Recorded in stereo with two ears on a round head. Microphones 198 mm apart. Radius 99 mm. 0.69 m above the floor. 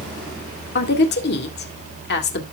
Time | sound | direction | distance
0.8 | a woman speaking | 50° left (ahead or behind) | 2 m